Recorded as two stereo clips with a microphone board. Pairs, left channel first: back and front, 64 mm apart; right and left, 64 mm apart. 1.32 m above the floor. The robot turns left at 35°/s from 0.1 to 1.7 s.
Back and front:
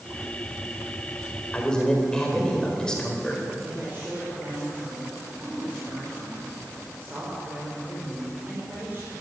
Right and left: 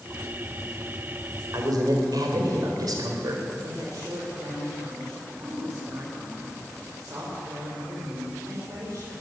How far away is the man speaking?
About 4 m.